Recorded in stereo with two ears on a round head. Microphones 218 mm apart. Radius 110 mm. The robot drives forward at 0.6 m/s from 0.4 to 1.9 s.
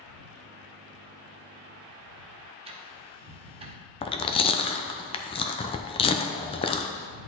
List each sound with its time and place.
2.6 s ticking: 25° right (ahead or behind), 0.9 m
4.0 s chewing: 20° left (ahead or behind), 0.5 m